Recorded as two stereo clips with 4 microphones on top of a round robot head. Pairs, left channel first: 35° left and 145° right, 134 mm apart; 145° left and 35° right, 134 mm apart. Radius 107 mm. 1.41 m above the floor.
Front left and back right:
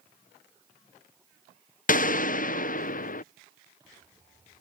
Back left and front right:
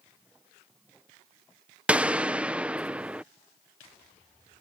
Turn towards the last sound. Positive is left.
turn(degrees=50)